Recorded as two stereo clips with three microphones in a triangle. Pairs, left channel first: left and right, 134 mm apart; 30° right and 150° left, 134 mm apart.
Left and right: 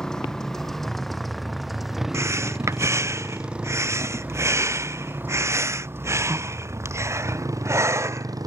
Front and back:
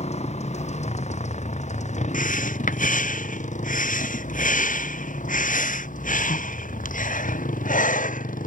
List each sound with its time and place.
0.0 s a motorcycle: 5° left; by 8.5 s 30° right
2.1 s breathing: 20° right